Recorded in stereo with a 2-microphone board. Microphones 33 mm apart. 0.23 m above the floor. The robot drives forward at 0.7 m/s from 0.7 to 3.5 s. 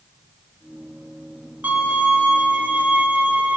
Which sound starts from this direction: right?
A violin, at 1.6 s.